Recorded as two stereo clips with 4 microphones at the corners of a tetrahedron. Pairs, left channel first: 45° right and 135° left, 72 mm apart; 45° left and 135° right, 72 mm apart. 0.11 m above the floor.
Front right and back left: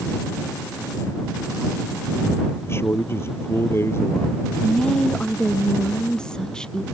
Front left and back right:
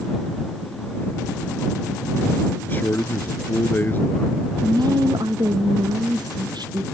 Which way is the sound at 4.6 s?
125° right.